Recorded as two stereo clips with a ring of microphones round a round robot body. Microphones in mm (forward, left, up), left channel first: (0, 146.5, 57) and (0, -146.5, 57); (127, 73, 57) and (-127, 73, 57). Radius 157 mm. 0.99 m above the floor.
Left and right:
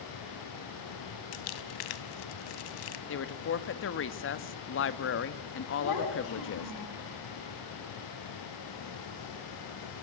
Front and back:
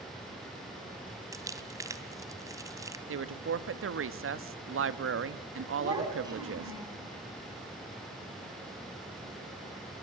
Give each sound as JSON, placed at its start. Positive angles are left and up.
{"t": 1.3, "sound": "crumpling", "azimuth_deg": 100, "distance_m": 2.0}
{"t": 3.1, "sound": "a woman speaking", "azimuth_deg": 140, "distance_m": 1.7}
{"t": 5.8, "sound": "a child speaking", "azimuth_deg": 105, "distance_m": 7.5}